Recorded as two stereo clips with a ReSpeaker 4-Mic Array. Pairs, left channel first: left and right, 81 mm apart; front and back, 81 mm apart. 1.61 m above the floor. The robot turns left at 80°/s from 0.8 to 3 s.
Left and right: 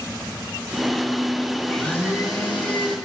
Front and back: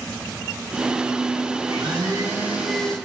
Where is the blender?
Straight behind, 3 m; by 3.0 s 75° left, 3 m.